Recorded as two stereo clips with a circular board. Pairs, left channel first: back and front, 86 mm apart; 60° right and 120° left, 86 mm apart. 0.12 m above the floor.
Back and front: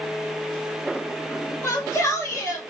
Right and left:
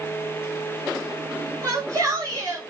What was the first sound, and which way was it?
A shout, 145° left.